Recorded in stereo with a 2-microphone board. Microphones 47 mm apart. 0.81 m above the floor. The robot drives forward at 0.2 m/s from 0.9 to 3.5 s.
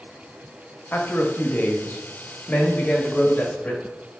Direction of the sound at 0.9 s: 45° left (ahead or behind).